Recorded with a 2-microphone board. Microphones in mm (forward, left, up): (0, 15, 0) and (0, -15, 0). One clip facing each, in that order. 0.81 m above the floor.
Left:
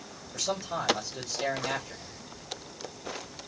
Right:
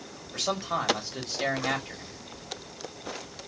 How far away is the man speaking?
About 1.6 m.